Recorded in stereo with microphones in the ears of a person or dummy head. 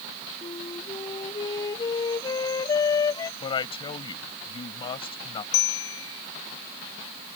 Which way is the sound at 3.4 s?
30° left (ahead or behind).